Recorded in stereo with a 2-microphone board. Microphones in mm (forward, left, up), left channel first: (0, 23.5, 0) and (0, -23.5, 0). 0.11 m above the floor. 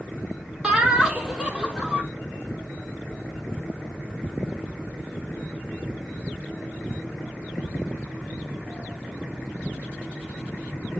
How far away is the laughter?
About 3.5 m.